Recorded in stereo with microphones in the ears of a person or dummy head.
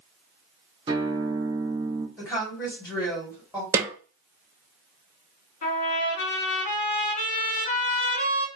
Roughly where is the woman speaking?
Centre.